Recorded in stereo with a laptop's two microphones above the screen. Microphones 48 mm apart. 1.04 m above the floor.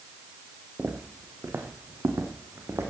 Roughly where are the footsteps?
Right.